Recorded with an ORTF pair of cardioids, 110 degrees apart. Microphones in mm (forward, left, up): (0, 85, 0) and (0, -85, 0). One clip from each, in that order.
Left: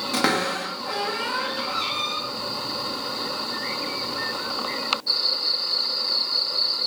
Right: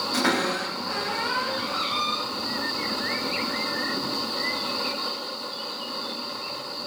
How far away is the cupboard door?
About 0.8 m.